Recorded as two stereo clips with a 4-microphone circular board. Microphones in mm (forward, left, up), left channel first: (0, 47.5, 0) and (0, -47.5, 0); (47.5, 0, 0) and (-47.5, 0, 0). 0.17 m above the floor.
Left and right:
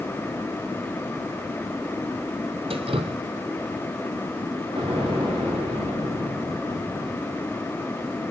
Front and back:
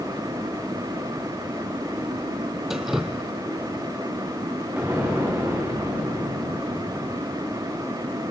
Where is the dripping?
90° right, 1.3 m.